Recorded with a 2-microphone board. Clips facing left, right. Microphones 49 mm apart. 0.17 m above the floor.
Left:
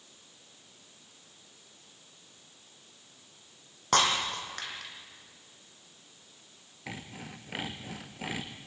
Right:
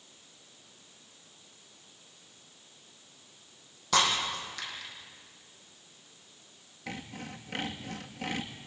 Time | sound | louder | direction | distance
3.9 | breaking glass | left 1 dB | 45° left (ahead or behind) | 5 m
6.9 | sawing | right 2 dB | 5° left (ahead or behind) | 1.9 m